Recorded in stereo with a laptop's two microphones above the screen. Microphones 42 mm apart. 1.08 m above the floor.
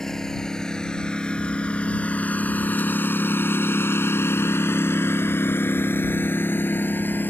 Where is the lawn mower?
10° left (ahead or behind); by 7.3 s 50° left (ahead or behind).